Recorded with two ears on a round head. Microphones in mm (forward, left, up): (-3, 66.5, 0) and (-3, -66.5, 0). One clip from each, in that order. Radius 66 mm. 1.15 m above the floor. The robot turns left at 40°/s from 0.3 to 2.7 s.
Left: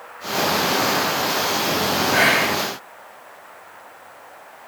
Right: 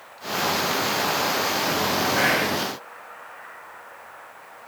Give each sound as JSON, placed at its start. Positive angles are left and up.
{"t": 2.1, "sound": "whispering", "side_deg": 50, "distance_m": 1.7}